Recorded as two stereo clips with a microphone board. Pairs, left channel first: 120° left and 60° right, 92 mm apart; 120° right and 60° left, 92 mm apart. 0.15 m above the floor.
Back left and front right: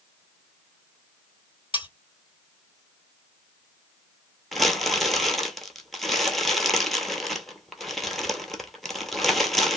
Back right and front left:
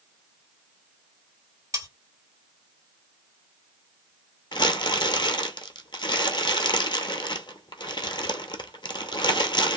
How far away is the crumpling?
About 0.6 m.